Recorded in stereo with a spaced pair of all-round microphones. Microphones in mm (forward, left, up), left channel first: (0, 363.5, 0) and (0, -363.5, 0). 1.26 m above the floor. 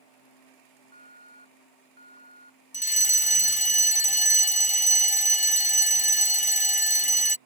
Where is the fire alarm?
10° left (ahead or behind).